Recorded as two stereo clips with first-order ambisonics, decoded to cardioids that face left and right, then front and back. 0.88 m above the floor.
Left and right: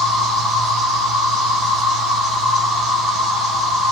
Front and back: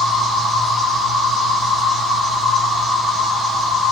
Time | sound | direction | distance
0.0 | an insect | 75° right | 1.4 m